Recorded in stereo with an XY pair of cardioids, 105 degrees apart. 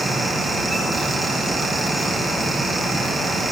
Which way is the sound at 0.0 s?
30° right.